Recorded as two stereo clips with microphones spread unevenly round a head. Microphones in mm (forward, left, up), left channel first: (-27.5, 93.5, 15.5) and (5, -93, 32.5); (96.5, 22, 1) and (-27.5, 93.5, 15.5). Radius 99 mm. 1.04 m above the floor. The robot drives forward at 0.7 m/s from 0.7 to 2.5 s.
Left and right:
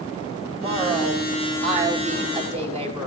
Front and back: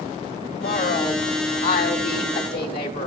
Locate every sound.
0.5 s a woman speaking: 15° right, 7 m; by 3.1 s 20° right, 6 m